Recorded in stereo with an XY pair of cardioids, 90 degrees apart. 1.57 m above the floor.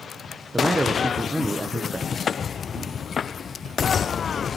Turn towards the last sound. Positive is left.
turn(degrees=40)